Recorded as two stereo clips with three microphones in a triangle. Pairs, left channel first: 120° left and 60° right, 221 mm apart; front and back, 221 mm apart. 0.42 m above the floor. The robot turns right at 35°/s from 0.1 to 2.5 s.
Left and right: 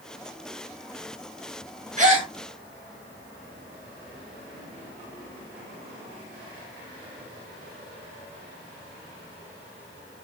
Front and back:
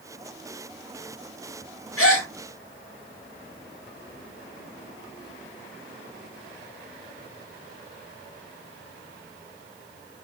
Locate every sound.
2.0 s a gasp: 5° right, 0.7 m; by 2.3 s 5° left, 0.7 m